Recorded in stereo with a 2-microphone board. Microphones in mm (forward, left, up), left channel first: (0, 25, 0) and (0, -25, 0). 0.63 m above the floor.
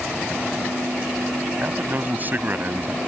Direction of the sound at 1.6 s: 35° right (ahead or behind).